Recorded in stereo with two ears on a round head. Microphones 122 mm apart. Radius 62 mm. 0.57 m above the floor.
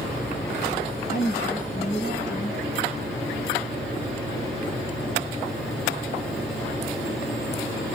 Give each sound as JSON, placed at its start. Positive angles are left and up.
{"t": 1.1, "sound": "a woman speaking", "side_deg": 60, "distance_m": 6.0}